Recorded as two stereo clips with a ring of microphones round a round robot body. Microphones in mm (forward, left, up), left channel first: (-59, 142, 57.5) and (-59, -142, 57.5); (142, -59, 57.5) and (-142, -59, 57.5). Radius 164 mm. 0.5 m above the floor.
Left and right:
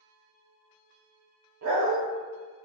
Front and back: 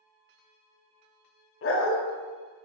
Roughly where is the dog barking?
Ahead right.